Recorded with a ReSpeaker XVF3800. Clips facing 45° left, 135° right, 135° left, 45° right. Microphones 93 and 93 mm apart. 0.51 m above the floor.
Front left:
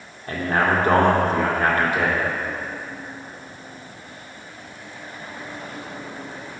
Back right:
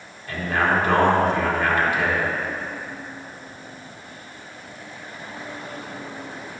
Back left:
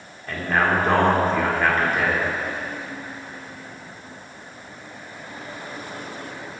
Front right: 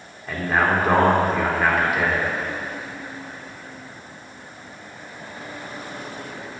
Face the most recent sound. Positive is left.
turn(degrees=35)